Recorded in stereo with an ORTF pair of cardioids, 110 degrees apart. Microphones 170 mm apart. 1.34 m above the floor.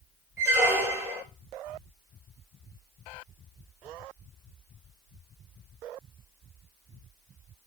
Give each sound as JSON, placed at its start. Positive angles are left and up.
{"t": 0.4, "sound": "a squeak", "azimuth_deg": -15, "distance_m": 1.0}